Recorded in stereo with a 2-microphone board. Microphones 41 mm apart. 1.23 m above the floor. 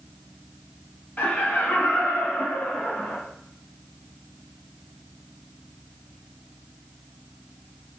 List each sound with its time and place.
1.2 s laughter: 40° left (ahead or behind), 0.9 m; by 3.2 s 80° left, 1.4 m